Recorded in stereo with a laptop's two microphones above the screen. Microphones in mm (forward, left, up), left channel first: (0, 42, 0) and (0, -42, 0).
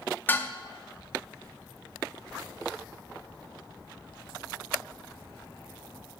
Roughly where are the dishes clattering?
Left.